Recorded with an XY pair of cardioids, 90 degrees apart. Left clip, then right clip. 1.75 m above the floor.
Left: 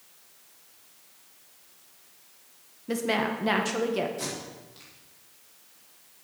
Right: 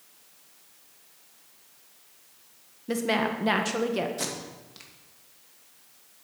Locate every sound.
2.9 s a woman speaking: 15° right, 1.6 m
4.2 s tape being pulled: 55° right, 2 m